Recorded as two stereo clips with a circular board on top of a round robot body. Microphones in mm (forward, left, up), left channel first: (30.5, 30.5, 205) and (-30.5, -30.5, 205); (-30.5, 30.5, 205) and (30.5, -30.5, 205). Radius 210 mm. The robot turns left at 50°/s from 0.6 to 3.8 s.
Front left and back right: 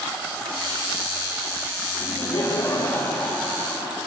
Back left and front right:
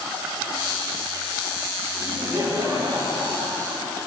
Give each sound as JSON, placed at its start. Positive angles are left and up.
{"t": 2.0, "sound": "laughter", "azimuth_deg": 30, "distance_m": 3.5}